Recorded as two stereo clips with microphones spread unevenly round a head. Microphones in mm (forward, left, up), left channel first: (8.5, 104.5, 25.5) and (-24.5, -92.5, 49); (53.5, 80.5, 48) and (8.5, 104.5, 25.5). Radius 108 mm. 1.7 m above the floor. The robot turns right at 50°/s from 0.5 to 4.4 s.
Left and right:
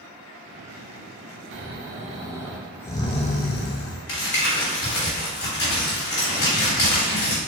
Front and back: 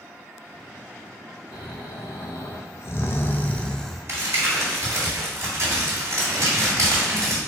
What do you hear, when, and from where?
1.5 s snoring: 65° right, 0.7 m; by 4.0 s 60° left, 0.7 m
4.1 s crumpling: 105° left, 2 m; by 7.4 s 120° left, 2 m